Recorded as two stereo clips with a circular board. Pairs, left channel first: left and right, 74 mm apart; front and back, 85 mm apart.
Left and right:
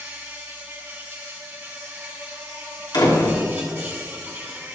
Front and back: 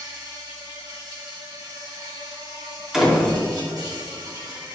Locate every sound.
0.0 s an insect: 145° right, 3 m
2.9 s a door slam: 95° left, 2 m